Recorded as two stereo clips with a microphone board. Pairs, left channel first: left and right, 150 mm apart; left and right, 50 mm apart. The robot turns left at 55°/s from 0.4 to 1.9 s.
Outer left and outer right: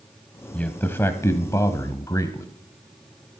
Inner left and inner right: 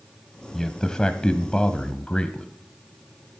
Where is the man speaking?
10° left (ahead or behind), 1.0 m; by 2.5 s 20° left (ahead or behind), 1.0 m.